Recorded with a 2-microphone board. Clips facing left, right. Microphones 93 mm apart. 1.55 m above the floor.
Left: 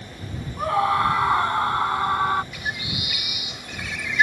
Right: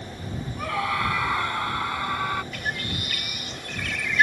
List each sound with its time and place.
0.6 s a scream: 30° left (ahead or behind)
2.5 s a bird: 10° left (ahead or behind)